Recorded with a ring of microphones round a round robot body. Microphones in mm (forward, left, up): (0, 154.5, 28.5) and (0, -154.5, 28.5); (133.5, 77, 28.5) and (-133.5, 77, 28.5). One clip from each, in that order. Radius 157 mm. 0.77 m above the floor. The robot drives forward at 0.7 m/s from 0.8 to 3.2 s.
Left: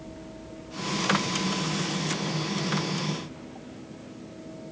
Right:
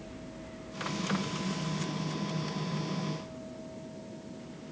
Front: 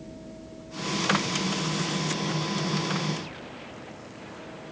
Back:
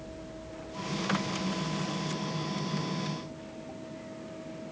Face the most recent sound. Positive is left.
No sound to turn to.